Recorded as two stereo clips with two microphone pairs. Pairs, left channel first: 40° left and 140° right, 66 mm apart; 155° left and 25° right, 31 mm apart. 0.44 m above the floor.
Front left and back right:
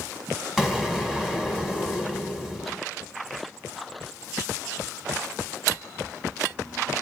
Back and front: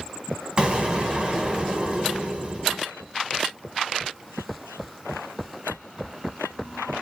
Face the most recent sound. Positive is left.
turn(degrees=-55)